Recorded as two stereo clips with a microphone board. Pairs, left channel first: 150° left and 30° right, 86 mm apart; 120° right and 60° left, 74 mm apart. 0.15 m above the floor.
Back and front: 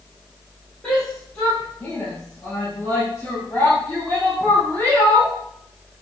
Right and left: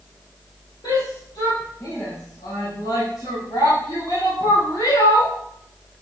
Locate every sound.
0.8 s a shout: 130° right, 4.5 m; by 5.3 s 135° right, 8 m